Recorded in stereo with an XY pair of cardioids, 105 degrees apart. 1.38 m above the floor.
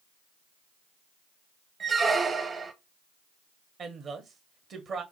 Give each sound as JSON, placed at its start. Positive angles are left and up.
{"t": 1.8, "sound": "a squeak", "azimuth_deg": -35, "distance_m": 0.8}
{"t": 3.8, "sound": "a woman speaking", "azimuth_deg": -55, "distance_m": 1.3}